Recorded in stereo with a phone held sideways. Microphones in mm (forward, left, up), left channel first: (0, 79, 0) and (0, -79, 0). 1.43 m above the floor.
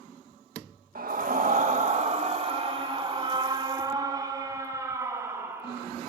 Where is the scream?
65° right (ahead or behind), 2 m; by 5.9 s 15° right (ahead or behind), 4.5 m.